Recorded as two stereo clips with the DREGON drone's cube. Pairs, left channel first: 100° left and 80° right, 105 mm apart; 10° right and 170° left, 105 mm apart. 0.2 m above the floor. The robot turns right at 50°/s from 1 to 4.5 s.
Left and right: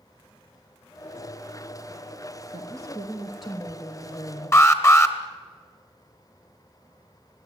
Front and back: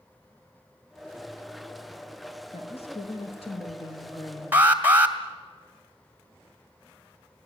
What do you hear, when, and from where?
2.5 s a woman speaking: 35° right, 5 m; by 4.6 s 60° left, 5 m
4.5 s an alarm: 120° left, 2 m